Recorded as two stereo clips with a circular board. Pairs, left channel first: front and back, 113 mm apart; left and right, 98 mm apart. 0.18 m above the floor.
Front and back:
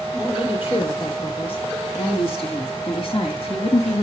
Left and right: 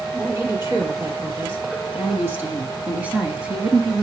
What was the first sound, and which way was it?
A woman speaking, 35° right.